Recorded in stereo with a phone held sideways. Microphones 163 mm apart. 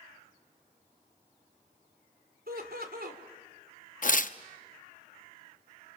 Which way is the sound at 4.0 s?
55° left (ahead or behind).